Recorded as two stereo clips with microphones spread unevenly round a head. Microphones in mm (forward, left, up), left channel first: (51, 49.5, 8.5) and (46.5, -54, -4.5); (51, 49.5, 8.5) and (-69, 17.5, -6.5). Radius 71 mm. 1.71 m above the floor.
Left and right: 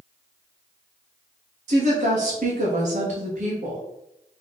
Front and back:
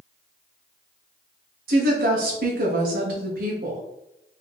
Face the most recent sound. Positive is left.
turn(degrees=-135)